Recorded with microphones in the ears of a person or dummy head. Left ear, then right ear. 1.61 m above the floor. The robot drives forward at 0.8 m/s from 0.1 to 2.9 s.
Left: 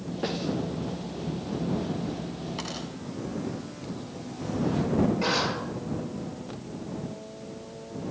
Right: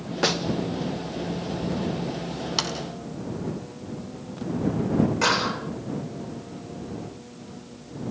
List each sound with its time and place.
0.2 s a snare drum: 50° right (ahead or behind), 0.9 m; by 0.4 s 45° right (ahead or behind), 1.0 m
2.6 s a sliding door: 55° right (ahead or behind), 3 m
5.2 s a clap: 55° right (ahead or behind), 7 m